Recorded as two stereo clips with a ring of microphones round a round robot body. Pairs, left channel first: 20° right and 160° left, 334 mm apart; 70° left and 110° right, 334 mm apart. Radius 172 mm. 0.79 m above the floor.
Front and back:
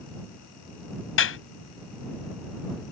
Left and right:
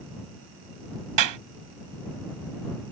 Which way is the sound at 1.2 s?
75° right.